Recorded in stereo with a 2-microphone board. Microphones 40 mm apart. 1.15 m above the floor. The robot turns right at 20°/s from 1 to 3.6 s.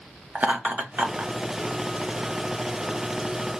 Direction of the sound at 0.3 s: 40° right (ahead or behind).